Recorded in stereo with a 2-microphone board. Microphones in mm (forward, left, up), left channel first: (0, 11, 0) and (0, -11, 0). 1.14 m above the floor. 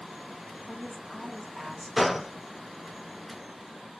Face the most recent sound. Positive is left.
turn(degrees=-5)  # may be behind; listen again after turning